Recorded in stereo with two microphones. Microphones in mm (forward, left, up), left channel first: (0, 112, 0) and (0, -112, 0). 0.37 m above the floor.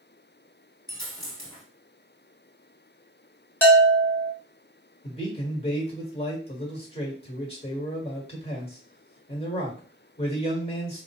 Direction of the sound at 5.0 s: 25° left (ahead or behind).